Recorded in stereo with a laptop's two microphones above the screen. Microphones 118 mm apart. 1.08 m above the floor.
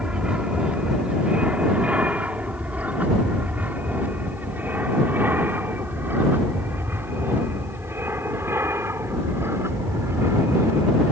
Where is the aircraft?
10° right (ahead or behind); by 11.1 s 25° right (ahead or behind).